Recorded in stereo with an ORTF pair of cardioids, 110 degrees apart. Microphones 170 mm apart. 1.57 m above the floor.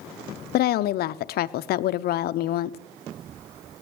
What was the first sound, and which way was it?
A woman speaking, 65° left.